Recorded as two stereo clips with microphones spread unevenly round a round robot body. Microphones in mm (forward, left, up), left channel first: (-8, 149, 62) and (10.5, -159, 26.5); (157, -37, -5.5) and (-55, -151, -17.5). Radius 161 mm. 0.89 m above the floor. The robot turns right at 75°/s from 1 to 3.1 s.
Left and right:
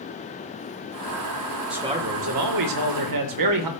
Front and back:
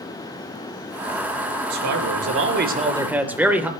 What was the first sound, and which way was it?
A man speaking, 175° right.